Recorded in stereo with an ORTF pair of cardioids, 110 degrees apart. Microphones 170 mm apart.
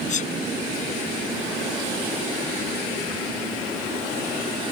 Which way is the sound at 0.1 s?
50° left.